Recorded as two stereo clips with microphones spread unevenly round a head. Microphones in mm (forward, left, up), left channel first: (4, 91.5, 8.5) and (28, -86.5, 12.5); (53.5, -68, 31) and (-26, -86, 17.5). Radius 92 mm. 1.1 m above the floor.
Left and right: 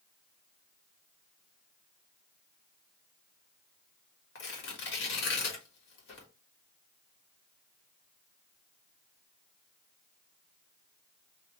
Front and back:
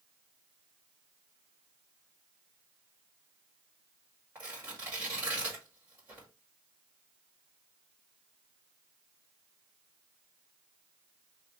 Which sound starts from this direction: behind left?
Tearing paper, at 4.3 s.